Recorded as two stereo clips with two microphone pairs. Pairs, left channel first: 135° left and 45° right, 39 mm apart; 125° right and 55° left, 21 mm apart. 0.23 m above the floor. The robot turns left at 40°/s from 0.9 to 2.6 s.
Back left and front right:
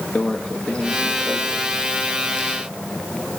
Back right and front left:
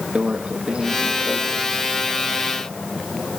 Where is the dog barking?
I don't hear a dog barking.